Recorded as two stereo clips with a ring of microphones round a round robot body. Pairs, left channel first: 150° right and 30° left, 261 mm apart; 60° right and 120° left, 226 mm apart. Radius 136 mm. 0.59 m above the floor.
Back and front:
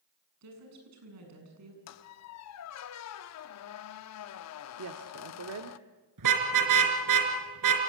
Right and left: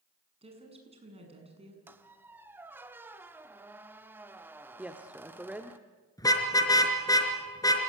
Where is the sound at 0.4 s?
55° left, 7.5 m.